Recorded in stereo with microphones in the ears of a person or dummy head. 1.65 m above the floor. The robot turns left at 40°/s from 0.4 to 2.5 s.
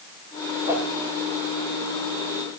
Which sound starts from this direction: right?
A whoosh, at 0.7 s.